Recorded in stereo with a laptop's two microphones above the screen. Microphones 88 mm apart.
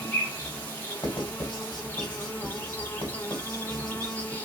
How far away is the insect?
About 1.4 m.